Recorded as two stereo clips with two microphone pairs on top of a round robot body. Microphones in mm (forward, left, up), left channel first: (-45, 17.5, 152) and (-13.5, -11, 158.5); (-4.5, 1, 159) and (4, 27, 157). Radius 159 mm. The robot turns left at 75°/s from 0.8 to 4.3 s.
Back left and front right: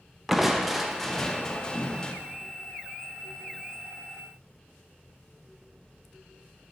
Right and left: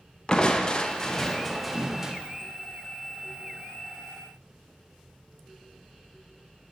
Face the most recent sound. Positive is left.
turn(degrees=-45)